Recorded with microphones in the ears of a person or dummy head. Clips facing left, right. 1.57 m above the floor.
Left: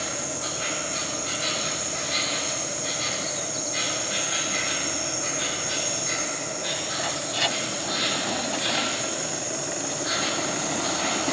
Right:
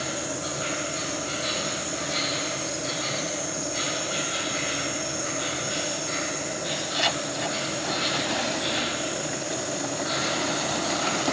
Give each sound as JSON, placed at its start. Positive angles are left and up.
{"t": 0.0, "sound": "an insect", "side_deg": 65, "distance_m": 1.5}